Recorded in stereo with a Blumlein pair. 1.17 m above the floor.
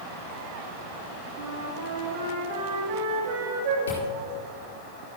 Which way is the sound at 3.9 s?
65° left.